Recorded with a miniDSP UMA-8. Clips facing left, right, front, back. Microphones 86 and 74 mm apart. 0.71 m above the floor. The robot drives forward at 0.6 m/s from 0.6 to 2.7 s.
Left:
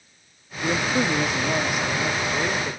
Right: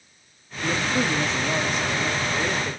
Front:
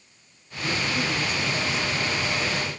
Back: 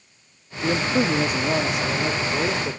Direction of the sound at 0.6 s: 160° left.